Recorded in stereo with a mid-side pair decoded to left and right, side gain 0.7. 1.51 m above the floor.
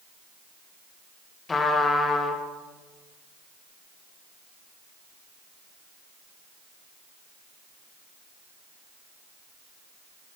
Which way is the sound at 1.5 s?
20° left.